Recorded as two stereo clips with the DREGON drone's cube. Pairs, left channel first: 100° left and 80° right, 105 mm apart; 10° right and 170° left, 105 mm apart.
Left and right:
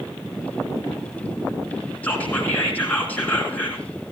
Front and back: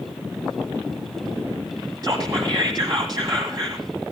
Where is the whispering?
165° left, 1.5 m.